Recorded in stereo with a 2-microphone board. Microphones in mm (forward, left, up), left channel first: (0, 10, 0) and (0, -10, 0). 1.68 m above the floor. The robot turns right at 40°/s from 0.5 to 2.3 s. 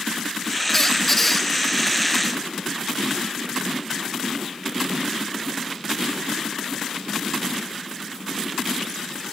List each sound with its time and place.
0.7 s a squeak: 20° left (ahead or behind), 0.5 m; by 1.5 s 15° left (ahead or behind), 0.5 m